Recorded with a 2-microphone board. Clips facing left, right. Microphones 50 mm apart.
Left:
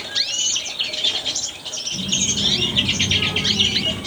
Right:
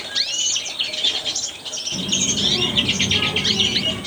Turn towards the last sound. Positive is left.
turn(degrees=-30)  # may be behind; listen again after turning